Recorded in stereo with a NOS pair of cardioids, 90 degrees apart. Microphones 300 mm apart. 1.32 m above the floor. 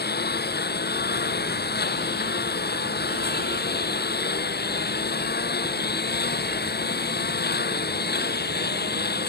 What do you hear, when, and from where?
0.0 s a lawn mower: 35° left